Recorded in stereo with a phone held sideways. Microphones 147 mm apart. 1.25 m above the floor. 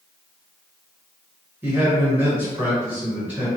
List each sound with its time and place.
1.6 s a man speaking: 10° right (ahead or behind), 1.4 m